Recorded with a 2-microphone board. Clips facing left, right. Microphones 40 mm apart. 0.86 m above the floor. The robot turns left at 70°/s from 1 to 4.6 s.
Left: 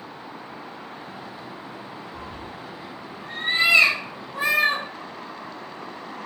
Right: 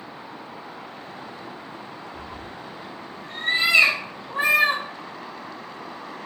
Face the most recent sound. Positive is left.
turn(degrees=-65)  # may be behind; listen again after turning